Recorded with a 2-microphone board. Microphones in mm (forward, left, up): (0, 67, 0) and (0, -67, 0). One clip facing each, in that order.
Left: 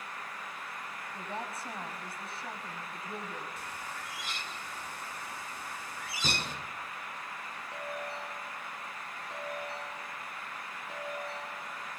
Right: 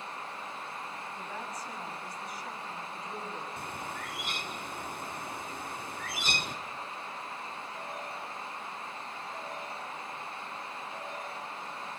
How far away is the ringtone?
About 8.5 m.